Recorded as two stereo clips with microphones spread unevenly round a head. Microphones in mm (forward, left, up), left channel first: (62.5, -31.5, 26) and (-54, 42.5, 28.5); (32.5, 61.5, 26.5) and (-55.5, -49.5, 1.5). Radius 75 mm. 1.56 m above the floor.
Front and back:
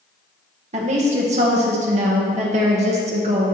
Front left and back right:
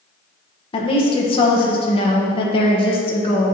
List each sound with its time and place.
0.7 s a woman speaking: 105° left, 1.1 m